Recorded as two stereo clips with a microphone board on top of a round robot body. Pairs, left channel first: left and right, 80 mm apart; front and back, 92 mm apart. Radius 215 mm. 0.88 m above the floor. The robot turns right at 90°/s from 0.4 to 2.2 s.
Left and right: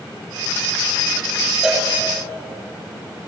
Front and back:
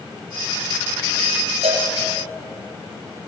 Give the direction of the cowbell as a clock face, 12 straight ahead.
6 o'clock.